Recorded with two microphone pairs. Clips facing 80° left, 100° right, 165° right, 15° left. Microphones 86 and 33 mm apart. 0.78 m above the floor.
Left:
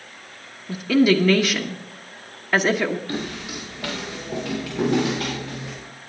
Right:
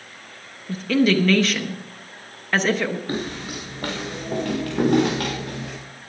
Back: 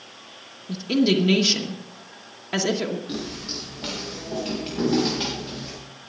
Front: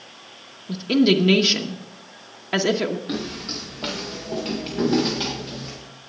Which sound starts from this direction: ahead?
A woman speaking, at 0.7 s.